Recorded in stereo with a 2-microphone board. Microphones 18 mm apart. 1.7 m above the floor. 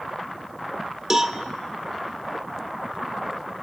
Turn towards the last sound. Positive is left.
turn(degrees=-25)  # may be behind; listen again after turning